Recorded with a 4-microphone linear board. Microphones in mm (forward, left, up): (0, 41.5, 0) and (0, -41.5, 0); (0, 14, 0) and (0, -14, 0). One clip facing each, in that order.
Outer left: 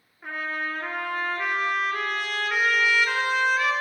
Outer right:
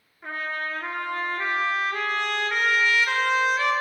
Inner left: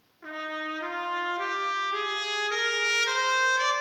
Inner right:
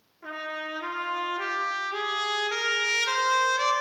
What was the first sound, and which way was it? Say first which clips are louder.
A trumpet: even, even; 5° left (ahead or behind).